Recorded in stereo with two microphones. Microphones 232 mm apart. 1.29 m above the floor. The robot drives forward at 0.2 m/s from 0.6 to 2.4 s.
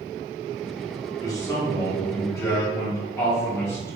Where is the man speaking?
15° left (ahead or behind), 1.6 m; by 4.0 s 10° left (ahead or behind), 1.8 m.